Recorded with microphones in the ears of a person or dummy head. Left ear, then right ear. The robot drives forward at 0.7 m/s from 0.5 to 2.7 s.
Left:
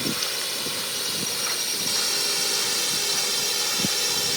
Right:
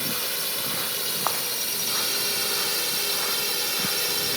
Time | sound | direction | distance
0.0 | a drone | 10° left (ahead or behind) | ?